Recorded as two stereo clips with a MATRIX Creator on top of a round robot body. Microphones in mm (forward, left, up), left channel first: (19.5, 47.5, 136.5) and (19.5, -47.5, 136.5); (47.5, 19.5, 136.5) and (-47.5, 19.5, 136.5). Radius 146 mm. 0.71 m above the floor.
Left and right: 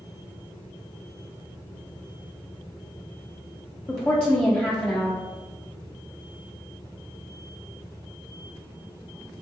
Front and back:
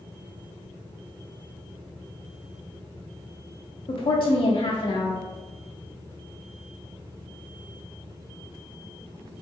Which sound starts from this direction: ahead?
A woman speaking, at 3.9 s.